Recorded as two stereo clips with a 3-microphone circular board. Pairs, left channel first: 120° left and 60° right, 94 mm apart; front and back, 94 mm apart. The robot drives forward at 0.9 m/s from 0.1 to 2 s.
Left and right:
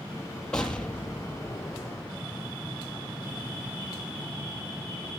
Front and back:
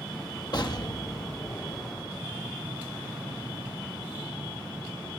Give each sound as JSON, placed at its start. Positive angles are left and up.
{"t": 0.5, "sound": "an explosion", "azimuth_deg": 40, "distance_m": 3.0}